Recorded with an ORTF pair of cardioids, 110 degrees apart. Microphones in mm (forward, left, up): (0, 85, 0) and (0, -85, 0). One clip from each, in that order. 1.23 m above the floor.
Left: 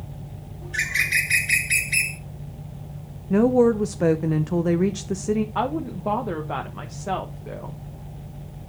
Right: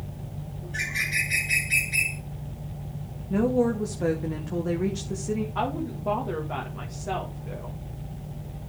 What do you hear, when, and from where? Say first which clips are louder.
0.6 s a bird: left 5 dB; 50° left, 1.7 m
3.3 s a woman speaking: left 6 dB; 40° left, 0.9 m
5.5 s a woman speaking: left 3 dB; 40° left, 1.4 m